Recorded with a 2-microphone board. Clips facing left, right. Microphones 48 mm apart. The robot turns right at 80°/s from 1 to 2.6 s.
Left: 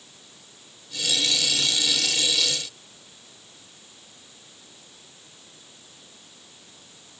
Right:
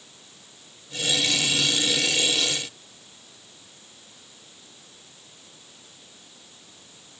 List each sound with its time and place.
Only background noise.